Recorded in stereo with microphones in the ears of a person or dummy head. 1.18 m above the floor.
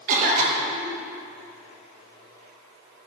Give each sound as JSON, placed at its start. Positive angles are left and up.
{"t": 0.1, "sound": "a cough", "side_deg": -40, "distance_m": 1.0}